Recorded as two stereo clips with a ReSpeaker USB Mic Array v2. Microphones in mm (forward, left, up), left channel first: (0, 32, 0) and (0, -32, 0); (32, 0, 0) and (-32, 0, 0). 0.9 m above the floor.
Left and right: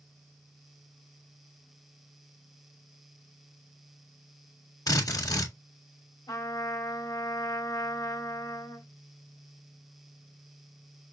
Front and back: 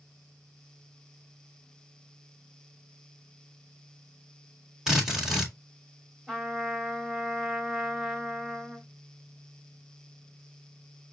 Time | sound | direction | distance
4.9 | a drill | 95° left | 1.8 m
6.3 | a trumpet | 95° left | 1.9 m